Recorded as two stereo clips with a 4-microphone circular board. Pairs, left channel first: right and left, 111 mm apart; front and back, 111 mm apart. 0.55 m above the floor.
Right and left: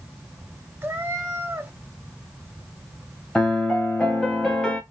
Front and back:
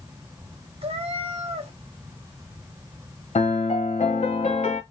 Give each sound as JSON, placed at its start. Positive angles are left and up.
{"t": 0.8, "sound": "a cat meowing", "azimuth_deg": 160, "distance_m": 0.8}
{"t": 3.4, "sound": "a piano", "azimuth_deg": -5, "distance_m": 1.0}